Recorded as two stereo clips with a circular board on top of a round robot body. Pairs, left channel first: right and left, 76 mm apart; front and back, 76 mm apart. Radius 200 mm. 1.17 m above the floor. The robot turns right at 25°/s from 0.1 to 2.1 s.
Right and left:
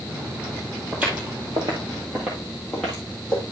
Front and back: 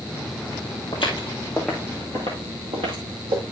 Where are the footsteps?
15° left, 1.3 m; by 3.4 s 170° right, 1.9 m.